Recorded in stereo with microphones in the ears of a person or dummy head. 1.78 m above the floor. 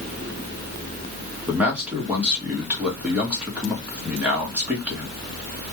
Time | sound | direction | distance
1.5 | a man speaking | 5° right (ahead or behind) | 0.8 m